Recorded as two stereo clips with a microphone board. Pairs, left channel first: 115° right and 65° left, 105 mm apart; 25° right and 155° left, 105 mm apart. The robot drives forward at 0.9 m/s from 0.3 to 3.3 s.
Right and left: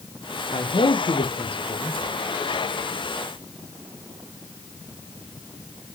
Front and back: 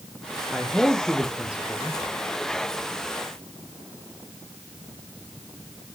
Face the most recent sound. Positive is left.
turn(degrees=-145)